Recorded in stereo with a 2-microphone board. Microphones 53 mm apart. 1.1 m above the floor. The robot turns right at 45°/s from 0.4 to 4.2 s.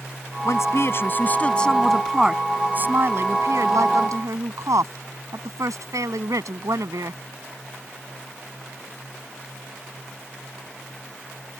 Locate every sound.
0.5 s a woman speaking: 110° left; by 7.2 s 85° right